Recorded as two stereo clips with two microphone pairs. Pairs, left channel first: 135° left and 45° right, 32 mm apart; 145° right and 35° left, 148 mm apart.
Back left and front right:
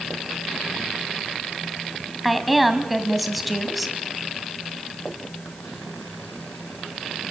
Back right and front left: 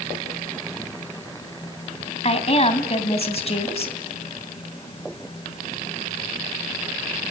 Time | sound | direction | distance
2.2 | a woman speaking | 135° right | 1.9 m